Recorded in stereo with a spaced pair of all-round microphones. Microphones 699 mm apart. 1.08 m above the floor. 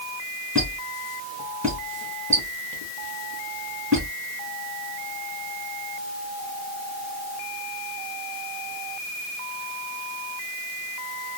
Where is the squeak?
20° right (ahead or behind), 2.5 m.